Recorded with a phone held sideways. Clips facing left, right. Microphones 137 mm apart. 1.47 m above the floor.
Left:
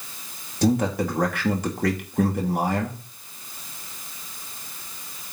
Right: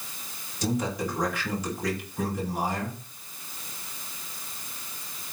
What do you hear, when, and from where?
0.6 s a man speaking: 60° left (ahead or behind), 3 m